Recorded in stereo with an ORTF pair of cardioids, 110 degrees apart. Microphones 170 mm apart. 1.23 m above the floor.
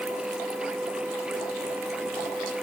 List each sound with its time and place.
0.0 s a machine running: 5° right